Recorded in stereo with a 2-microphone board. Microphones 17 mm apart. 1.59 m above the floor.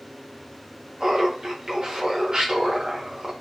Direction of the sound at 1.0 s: 45° right (ahead or behind).